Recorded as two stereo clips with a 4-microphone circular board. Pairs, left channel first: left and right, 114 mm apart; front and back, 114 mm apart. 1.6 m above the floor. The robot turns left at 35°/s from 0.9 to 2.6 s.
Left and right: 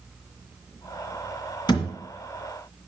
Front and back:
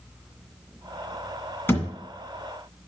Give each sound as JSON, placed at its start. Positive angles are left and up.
{"t": 1.7, "sound": "a thud", "azimuth_deg": 65, "distance_m": 2.0}